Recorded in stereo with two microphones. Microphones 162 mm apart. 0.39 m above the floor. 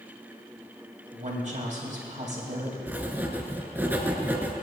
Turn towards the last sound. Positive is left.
turn(degrees=-10)  # may be behind; listen again after turning